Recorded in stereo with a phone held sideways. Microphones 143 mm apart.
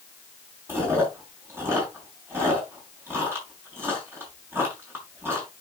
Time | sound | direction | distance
0.7 | chewing | 15° right (ahead or behind) | 6 m